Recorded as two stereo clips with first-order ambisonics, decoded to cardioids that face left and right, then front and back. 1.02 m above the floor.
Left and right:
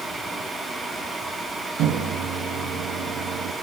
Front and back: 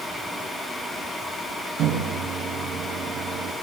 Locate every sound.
1.8 s a microwave: 130° right, 1.5 m